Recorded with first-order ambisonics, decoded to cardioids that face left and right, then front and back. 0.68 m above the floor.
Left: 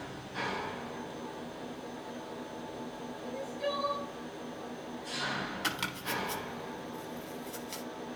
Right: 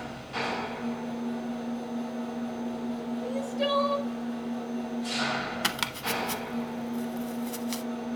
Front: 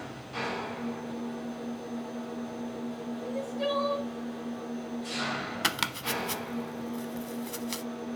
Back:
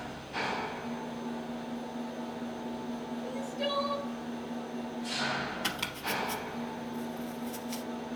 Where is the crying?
95° right, 1.1 m.